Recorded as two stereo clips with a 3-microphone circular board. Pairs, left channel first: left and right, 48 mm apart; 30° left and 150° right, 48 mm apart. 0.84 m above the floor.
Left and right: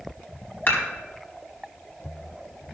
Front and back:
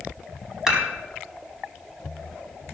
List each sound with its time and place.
0.7 s dishes clattering: 130° left, 4 m